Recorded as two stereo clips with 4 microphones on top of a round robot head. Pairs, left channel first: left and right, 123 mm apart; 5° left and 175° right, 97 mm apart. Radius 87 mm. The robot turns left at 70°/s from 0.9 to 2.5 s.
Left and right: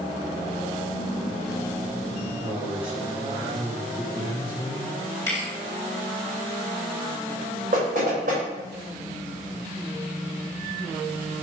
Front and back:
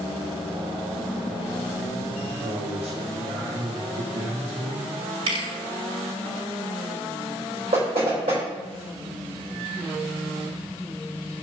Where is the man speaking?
140° right, 1.9 m; by 5.0 s 150° right, 1.9 m.